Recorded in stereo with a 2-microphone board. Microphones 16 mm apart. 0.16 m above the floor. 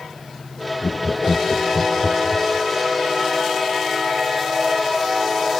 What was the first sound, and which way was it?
Laughter, 50° left (ahead or behind).